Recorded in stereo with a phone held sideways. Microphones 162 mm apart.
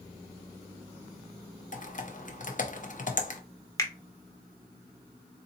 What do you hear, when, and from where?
1.7 s typing on a keyboard: 50° left (ahead or behind), 0.6 m
3.8 s a finger snap: 20° left (ahead or behind), 0.7 m